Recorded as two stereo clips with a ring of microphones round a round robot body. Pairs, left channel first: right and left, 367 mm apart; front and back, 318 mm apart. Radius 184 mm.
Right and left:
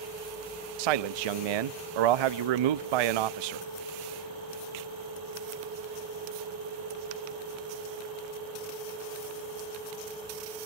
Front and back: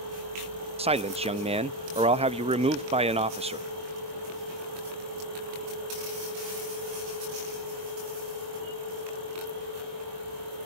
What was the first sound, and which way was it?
A man speaking, 105° left.